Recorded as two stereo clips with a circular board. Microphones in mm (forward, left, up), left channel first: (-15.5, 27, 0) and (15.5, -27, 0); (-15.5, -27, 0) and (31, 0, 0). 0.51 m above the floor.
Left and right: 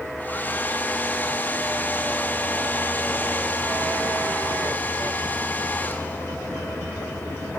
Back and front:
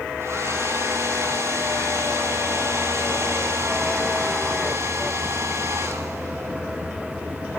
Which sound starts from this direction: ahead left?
A hair dryer, at 0.2 s.